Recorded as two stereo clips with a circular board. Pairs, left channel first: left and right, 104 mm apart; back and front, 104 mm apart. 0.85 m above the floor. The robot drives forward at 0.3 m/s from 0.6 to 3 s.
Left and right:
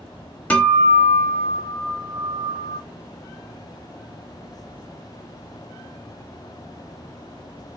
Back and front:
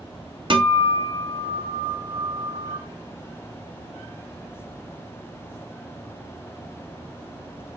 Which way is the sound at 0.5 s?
15° left.